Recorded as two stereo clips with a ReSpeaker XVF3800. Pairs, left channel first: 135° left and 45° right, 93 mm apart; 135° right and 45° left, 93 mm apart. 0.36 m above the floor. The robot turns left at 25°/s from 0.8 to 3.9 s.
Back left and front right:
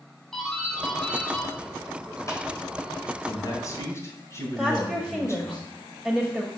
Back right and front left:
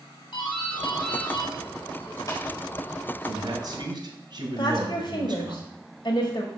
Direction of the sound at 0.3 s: 140° right.